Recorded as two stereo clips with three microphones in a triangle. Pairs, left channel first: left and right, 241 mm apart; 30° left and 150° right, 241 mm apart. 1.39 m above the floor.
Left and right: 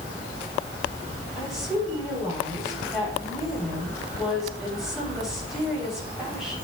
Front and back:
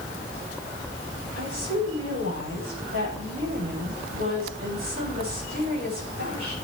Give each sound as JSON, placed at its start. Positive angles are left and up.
{"t": 1.4, "sound": "a woman speaking", "azimuth_deg": 180, "distance_m": 7.5}